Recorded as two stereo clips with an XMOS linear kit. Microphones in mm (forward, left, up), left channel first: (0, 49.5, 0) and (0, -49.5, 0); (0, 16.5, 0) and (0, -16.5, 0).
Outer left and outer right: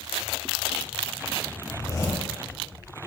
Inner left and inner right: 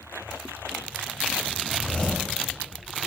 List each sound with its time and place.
1.7 s a zipper: 35° left (ahead or behind), 1.6 m